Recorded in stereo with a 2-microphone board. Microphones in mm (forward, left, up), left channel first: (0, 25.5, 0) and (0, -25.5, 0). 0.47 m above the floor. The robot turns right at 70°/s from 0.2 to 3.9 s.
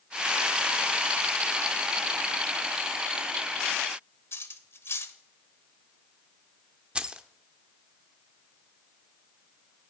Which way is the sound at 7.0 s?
20° right (ahead or behind).